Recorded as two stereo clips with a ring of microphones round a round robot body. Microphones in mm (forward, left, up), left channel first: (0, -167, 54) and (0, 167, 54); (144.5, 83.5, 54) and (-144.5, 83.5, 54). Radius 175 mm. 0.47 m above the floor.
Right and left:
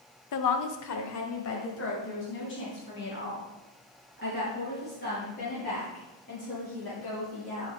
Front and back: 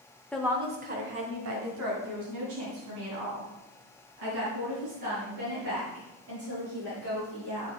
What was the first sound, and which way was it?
A woman speaking, 85° right.